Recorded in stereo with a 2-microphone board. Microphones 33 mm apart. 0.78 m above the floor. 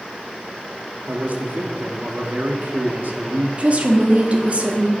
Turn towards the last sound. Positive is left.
turn(degrees=-45)  # may be behind; listen again after turning